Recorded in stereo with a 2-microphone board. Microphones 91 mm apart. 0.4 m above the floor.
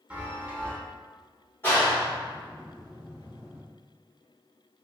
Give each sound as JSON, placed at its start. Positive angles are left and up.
{"t": 0.1, "sound": "a chime", "side_deg": -15, "distance_m": 1.0}
{"t": 1.6, "sound": "a clap", "side_deg": 25, "distance_m": 1.6}